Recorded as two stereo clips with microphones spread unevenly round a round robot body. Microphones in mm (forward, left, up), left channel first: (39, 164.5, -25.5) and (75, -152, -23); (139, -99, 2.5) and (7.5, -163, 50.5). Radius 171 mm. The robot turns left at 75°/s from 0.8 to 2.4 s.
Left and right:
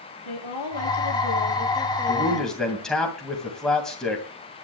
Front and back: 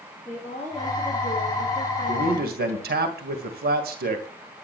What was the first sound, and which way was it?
A woman speaking, 105° left.